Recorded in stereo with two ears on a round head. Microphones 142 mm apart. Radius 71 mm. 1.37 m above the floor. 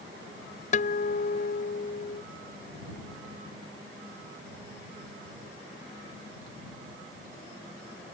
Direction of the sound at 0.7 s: 50° left (ahead or behind).